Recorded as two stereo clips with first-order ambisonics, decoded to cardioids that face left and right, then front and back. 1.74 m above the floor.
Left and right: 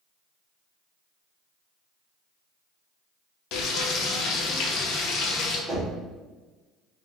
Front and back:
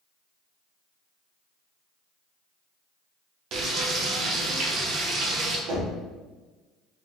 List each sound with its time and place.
3.5 s frying: 125° left, 0.5 m
5.7 s knocking: straight behind, 1.4 m